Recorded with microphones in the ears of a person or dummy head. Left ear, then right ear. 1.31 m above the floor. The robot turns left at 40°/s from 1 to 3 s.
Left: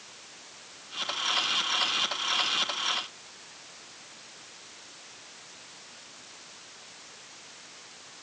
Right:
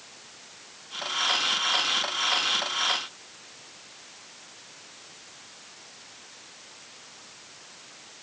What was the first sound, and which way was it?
Only background noise.